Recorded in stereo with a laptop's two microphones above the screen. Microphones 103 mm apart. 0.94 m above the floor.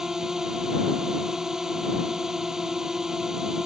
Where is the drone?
5° right (ahead or behind).